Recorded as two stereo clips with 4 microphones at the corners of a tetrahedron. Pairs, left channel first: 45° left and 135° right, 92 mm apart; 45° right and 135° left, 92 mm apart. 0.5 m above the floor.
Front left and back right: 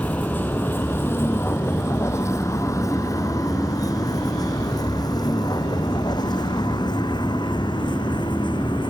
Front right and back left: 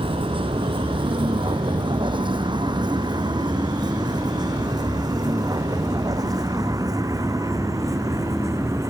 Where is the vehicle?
120° left; by 8.9 s 80° left.